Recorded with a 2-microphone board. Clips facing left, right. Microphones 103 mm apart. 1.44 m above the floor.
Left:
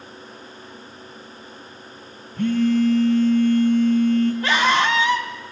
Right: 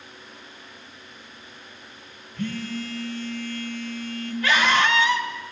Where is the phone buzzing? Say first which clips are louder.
Left 12 dB; 50° left (ahead or behind), 2 m.